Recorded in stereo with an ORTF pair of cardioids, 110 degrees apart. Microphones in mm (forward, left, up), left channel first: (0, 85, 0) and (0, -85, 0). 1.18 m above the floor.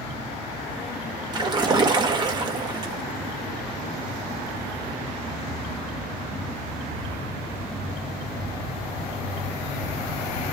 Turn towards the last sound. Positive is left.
turn(degrees=-25)